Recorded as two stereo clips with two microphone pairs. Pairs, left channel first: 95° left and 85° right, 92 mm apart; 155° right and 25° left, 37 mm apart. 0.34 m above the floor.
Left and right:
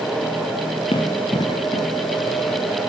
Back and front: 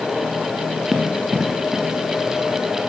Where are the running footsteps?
105° left, 2.0 m.